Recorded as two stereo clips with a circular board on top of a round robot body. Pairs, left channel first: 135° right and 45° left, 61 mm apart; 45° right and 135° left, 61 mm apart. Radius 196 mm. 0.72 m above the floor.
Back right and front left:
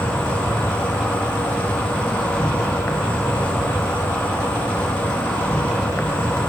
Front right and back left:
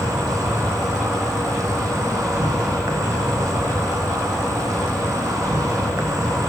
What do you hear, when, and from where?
0.0 s an insect: 155° left, 1.0 m